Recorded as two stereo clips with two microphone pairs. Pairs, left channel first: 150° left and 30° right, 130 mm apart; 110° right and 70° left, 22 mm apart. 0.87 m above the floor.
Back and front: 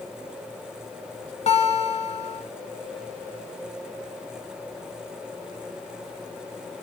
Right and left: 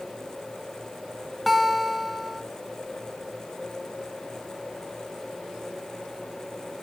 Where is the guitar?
160° left, 1.4 m.